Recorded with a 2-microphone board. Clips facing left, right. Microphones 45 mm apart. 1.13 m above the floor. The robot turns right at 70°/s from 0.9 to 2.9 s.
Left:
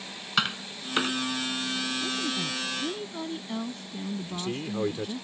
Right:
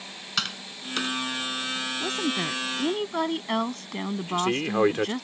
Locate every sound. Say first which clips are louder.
0.4 s tapping: left 4 dB; 20° left (ahead or behind); by 1.2 s 35° left (ahead or behind)
2.0 s a woman speaking: right 3 dB; 130° right; by 5.2 s 70° right
4.2 s a man speaking: right 7 dB; 65° right (ahead or behind)